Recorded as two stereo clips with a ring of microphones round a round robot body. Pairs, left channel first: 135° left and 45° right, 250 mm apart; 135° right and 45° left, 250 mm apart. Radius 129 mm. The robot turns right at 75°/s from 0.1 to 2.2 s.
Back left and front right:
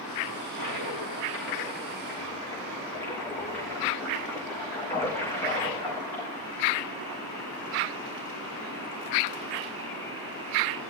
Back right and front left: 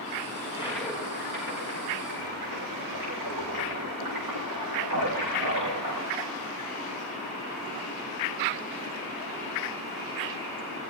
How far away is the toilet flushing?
About 6.5 m.